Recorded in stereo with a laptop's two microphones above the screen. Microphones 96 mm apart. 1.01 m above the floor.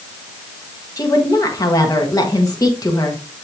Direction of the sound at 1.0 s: 40° left (ahead or behind).